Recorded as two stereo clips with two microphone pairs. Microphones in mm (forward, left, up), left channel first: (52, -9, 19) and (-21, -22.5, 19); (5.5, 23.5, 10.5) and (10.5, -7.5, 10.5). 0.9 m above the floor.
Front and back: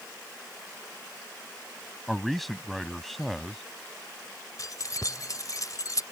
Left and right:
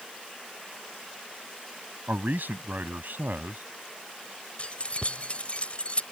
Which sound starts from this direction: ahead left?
Keys jangling, at 4.6 s.